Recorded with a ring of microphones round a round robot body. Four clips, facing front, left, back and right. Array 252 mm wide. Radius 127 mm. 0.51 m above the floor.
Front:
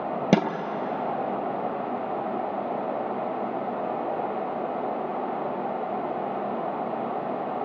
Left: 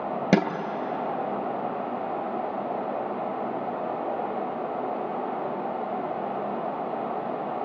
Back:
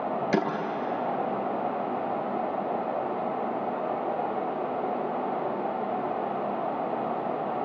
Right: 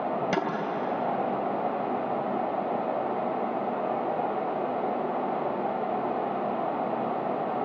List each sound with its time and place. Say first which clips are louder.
0.3 s a snare drum: left 9 dB, front 5 dB; 35° left, 2.5 m